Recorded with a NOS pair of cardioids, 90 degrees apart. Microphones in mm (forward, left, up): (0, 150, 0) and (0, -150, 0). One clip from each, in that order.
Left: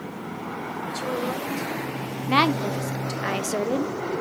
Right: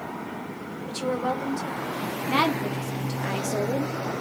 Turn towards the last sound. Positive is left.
turn(degrees=20)